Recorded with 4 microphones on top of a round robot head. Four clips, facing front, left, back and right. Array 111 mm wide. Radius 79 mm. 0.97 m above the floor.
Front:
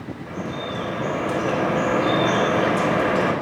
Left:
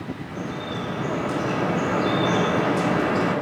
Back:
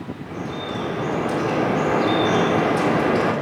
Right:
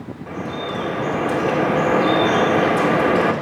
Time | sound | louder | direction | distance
0.3 | dripping | right 7 dB, even | 115° right | 2.5 m